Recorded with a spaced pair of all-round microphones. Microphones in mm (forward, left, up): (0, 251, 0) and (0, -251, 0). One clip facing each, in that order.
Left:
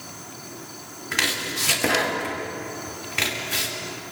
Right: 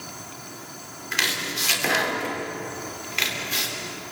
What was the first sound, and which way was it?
Chopping, 70° left (ahead or behind).